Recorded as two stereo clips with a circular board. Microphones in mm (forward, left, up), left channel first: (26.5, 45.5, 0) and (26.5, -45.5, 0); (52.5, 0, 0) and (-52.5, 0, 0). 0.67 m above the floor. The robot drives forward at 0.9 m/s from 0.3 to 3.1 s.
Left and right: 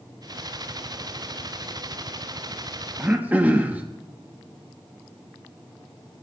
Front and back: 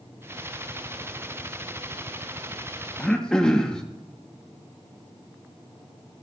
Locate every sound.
3.0 s throat clearing: 55° right, 1.0 m; by 3.8 s 65° right, 1.0 m